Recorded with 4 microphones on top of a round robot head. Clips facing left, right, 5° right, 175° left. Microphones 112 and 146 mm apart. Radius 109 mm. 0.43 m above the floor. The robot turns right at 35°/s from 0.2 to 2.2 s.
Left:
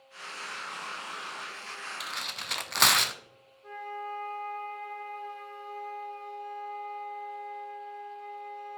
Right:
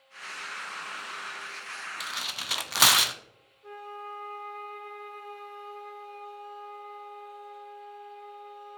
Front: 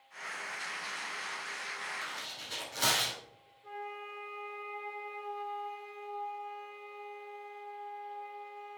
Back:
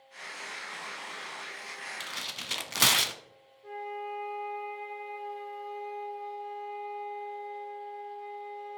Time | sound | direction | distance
2.0 | tearing paper | 175° left | 0.6 m
3.6 | a flute | 165° right | 2.5 m